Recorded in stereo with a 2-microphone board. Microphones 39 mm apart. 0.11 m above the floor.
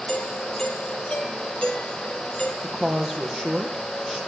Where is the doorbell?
35° left (ahead or behind), 4 m.